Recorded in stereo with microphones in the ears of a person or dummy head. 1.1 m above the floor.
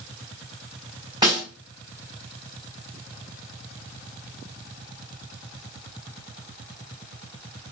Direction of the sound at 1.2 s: 20° right (ahead or behind).